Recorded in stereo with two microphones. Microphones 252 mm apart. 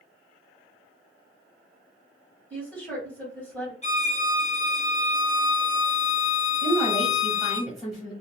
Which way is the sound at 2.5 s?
5° left (ahead or behind).